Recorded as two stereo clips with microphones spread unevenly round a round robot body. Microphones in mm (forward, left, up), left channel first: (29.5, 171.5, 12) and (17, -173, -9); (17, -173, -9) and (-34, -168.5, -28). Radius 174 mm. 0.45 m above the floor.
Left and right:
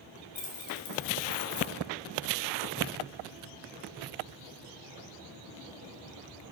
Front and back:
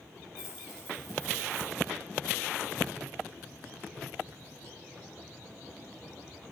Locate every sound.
0.3 s keys jangling: 60° left, 1.8 m; by 1.7 s 30° left, 2.5 m